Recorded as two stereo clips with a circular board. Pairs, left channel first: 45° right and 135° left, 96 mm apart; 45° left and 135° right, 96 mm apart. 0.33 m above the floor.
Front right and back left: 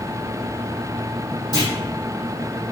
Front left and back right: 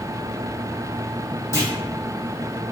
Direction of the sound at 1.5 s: 10° right.